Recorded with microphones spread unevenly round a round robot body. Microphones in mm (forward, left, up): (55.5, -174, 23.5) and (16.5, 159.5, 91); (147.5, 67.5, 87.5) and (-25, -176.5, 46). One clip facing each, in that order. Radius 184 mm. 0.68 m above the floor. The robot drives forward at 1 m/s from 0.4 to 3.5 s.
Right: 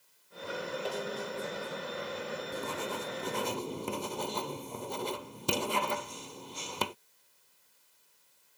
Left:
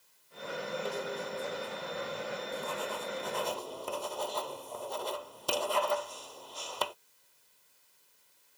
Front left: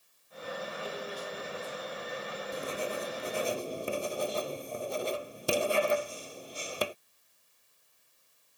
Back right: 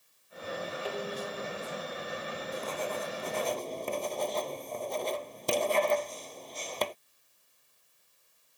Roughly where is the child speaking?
No child speaking in this recording.